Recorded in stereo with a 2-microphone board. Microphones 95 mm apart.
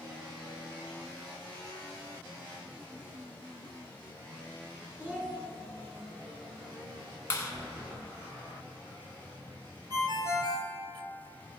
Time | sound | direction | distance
5.0 | a child speaking | 15° right (ahead or behind) | 1.8 m
7.3 | a clap | 30° left (ahead or behind) | 1.5 m
9.9 | a ringtone | 45° right (ahead or behind) | 1.6 m